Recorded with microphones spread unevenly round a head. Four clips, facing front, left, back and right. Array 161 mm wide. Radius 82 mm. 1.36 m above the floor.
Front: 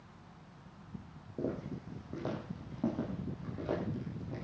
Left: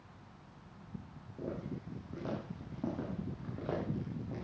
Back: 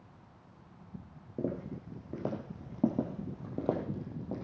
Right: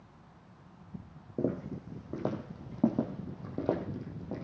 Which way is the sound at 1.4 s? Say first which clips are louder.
Right 8 dB, back 1 dB; 105° right.